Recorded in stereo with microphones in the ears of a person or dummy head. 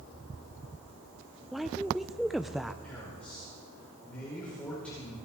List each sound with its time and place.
1.5 s a woman speaking: centre (ahead or behind), 0.5 m
2.8 s a man speaking: 10° left (ahead or behind), 5 m